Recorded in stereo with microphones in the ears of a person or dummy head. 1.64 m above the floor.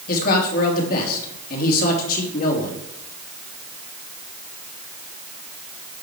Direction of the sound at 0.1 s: 55° left (ahead or behind).